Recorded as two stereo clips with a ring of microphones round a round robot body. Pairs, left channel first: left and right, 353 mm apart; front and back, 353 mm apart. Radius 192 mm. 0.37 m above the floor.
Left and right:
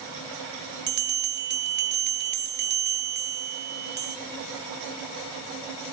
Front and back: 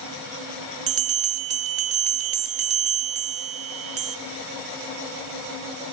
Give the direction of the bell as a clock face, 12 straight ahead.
5 o'clock.